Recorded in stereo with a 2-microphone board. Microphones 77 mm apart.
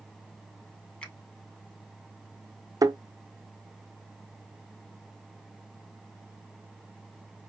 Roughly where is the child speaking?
I don't hear a child speaking.